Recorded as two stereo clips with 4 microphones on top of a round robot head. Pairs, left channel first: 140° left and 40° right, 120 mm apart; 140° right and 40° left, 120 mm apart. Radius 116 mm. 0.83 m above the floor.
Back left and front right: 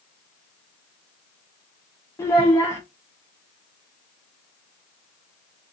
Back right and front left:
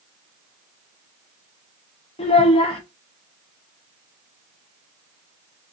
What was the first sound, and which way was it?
A child speaking, 160° right.